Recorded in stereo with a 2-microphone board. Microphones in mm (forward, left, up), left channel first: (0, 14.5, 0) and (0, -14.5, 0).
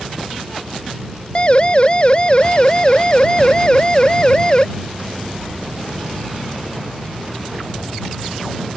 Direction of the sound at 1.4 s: 35° left (ahead or behind).